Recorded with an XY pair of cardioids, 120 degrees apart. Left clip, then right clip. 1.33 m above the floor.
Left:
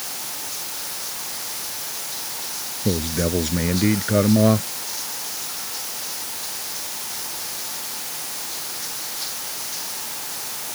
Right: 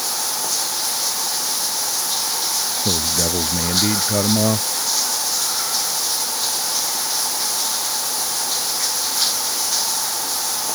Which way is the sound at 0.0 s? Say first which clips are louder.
Right 9 dB; 60° right.